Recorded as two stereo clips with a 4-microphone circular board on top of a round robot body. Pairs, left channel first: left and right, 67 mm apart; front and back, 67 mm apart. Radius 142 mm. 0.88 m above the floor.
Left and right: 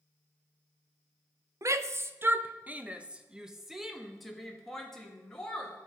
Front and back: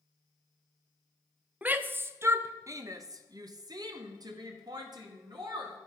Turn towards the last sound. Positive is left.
turn(degrees=170)